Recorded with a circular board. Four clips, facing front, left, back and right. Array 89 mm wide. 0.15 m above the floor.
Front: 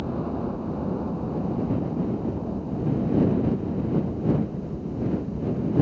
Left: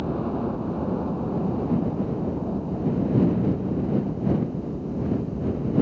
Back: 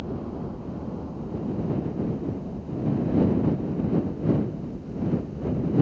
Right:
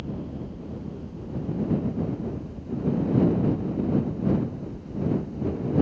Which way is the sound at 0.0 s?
65° left.